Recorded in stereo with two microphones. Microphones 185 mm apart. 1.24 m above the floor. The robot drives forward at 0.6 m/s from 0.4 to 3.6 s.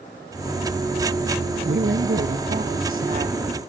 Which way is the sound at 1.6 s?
80° right.